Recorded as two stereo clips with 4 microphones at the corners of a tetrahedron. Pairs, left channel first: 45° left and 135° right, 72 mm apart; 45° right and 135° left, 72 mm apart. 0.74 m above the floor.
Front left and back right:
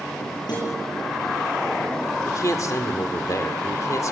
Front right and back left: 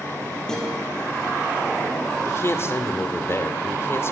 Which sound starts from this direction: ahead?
A man speaking, at 2.2 s.